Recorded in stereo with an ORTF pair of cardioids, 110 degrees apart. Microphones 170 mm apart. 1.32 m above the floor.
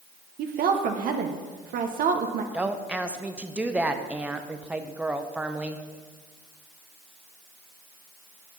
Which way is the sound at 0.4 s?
60° right.